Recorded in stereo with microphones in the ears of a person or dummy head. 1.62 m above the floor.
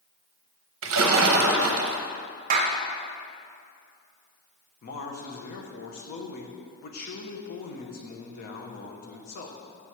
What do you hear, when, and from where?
0.8 s a splash: 75° right (ahead or behind), 0.6 m
2.5 s a clap: 40° right (ahead or behind), 0.6 m
4.8 s a man speaking: 50° left (ahead or behind), 0.9 m